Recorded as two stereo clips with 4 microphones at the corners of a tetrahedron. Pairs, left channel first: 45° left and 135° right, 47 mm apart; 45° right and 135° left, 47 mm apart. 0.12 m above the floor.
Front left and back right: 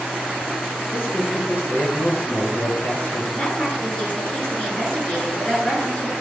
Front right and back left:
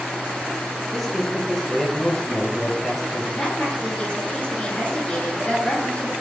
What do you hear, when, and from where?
0.9 s a man speaking: 30° left, 1.8 m
3.3 s a woman speaking: 5° right, 2.5 m